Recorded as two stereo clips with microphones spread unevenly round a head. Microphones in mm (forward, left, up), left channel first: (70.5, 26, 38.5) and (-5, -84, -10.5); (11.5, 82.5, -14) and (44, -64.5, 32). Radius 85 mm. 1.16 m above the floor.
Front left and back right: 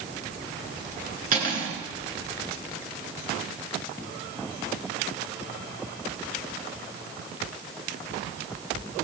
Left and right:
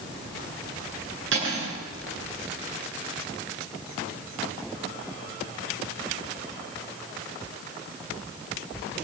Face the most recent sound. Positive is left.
turn(degrees=-100)